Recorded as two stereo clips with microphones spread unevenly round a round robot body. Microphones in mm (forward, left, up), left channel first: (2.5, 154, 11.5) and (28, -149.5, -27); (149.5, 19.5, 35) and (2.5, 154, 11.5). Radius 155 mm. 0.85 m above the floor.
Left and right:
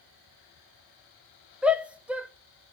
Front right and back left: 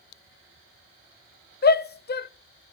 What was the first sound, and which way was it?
A shout, 5° right.